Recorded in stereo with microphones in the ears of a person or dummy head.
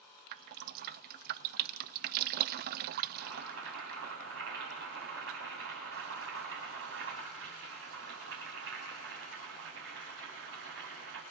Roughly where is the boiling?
Right.